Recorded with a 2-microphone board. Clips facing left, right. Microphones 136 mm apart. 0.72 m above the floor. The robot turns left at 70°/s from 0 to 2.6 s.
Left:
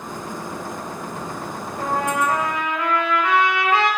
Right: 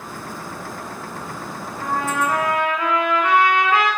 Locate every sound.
1.8 s a trumpet: 40° left, 2.5 m; by 3.9 s 20° right, 2.5 m